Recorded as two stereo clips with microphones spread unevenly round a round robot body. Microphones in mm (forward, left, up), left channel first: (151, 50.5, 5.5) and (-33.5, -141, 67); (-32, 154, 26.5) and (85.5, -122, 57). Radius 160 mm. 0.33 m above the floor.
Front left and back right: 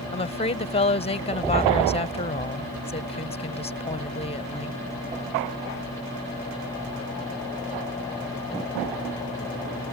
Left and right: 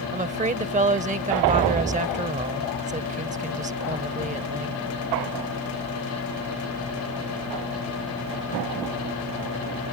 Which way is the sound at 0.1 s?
Straight ahead.